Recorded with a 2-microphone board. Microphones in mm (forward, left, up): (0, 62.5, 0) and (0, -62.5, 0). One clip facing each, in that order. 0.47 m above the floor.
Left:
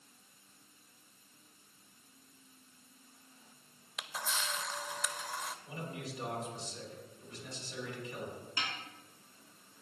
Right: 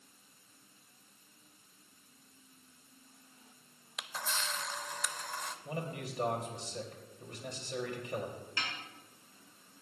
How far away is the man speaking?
About 2.5 m.